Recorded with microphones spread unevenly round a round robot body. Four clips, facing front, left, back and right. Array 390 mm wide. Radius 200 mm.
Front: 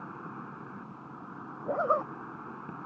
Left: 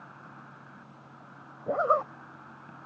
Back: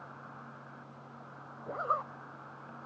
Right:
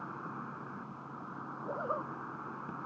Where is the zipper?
65° left.